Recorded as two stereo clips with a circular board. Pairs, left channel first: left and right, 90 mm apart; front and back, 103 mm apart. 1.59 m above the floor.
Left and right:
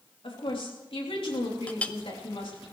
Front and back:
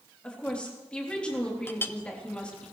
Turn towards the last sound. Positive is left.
turn(degrees=35)